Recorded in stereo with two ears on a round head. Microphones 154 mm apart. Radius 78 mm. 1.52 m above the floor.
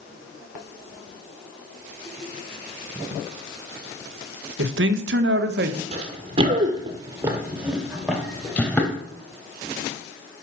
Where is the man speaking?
75° right (ahead or behind), 1.3 m; by 5.8 s 55° right (ahead or behind), 1.2 m.